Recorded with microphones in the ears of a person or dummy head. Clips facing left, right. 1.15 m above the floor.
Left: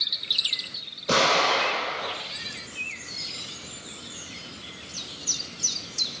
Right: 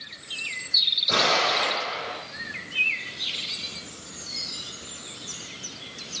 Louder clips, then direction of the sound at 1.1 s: Left 2 dB; 70° left (ahead or behind).